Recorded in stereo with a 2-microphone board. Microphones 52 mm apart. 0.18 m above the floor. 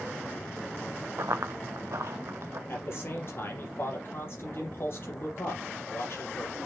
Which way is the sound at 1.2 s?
70° right (ahead or behind).